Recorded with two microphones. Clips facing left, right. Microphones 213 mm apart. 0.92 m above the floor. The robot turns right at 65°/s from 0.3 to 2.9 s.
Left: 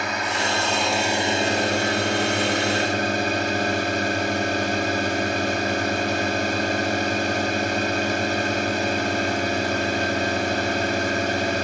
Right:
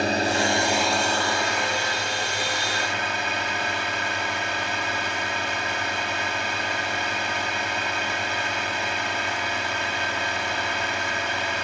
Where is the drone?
40° right; by 11.6 s 130° left.